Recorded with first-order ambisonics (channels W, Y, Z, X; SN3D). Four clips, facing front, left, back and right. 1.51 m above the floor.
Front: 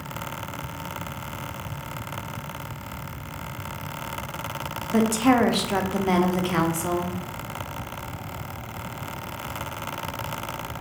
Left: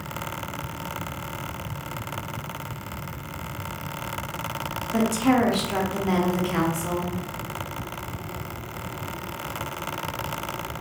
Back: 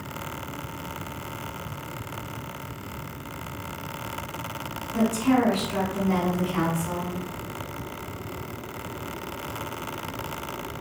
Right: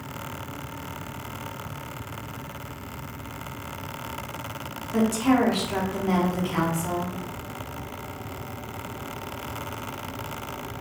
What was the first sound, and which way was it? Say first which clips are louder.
A woman speaking: even, front 3 dB; 10° left.